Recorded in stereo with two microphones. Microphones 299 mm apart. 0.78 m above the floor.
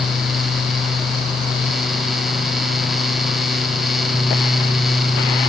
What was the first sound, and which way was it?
Only background noise.